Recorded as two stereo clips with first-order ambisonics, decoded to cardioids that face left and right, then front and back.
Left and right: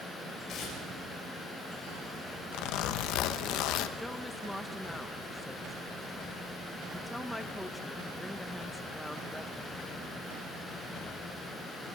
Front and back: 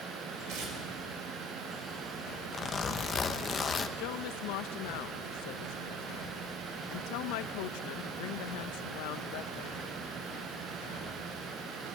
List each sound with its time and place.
0.5 s tearing paper: 145° left, 6 m
2.5 s a zipper: 70° left, 0.9 m
4.0 s a woman speaking: 5° left, 0.6 m